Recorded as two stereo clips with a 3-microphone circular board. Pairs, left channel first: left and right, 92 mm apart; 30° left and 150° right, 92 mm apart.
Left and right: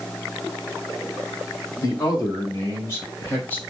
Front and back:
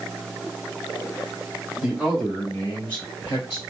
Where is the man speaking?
130° left, 1.8 m; by 3.6 s 25° left, 1.5 m.